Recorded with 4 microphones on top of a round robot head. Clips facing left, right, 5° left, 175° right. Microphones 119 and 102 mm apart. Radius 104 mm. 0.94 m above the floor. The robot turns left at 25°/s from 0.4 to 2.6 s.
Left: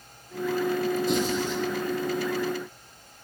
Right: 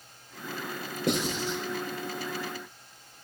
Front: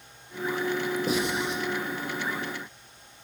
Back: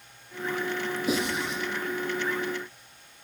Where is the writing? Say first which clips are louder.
Left 4 dB, front 1 dB; 60° right, 6.5 m; by 1.6 s 75° right, 6.5 m.